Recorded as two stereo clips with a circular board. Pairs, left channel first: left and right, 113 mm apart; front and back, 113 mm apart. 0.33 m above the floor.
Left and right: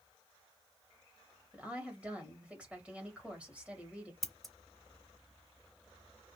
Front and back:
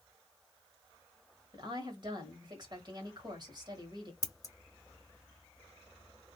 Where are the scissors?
5° left, 0.6 m.